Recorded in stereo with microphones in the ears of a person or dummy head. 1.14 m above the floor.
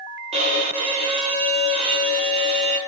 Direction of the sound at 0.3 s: 30° right (ahead or behind).